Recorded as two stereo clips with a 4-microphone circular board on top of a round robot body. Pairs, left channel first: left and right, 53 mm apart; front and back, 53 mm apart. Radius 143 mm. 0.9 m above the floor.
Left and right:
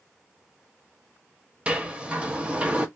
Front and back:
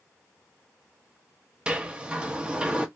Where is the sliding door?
130° right, 0.9 m.